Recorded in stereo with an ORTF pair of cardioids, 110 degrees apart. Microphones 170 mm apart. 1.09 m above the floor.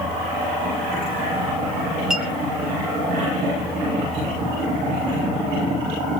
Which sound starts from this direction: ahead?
A clink, at 2.1 s.